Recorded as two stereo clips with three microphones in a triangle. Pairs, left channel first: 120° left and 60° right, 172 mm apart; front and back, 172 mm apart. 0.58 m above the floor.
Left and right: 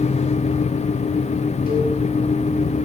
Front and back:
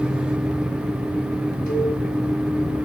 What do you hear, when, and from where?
1.7 s a cowbell: 150° left, 4.5 m